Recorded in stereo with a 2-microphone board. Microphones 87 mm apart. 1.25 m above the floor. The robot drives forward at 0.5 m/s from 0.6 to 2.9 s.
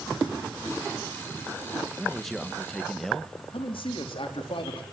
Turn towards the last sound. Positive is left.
turn(degrees=75)  # may be behind; listen again after turning